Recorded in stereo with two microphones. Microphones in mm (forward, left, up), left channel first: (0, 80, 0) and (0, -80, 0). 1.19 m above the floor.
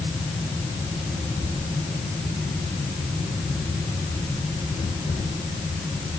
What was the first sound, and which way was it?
Only background noise.